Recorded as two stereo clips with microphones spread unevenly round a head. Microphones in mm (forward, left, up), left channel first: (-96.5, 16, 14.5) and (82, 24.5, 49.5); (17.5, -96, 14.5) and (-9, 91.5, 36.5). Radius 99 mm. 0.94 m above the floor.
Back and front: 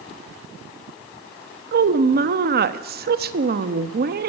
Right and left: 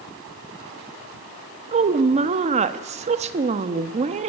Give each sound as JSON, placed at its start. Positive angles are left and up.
{"t": 1.7, "sound": "a woman speaking", "azimuth_deg": 40, "distance_m": 1.4}